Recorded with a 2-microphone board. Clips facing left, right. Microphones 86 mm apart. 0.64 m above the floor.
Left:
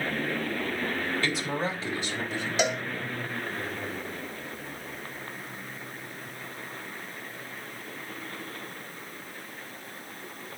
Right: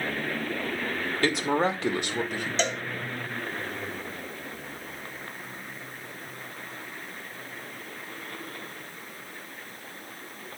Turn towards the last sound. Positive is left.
turn(degrees=10)  # may be behind; listen again after turning